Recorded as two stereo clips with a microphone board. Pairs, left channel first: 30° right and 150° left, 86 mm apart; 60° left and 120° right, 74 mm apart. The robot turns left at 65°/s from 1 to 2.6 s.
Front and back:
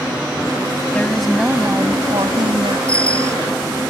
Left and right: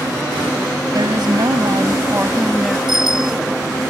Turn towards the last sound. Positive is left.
turn(degrees=-105)